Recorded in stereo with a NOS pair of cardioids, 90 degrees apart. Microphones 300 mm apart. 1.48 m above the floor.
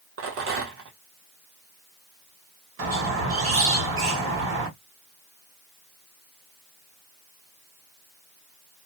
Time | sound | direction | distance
0.2 | a rattle | 50° right | 1.1 m
2.8 | a squeak | 45° right | 1.5 m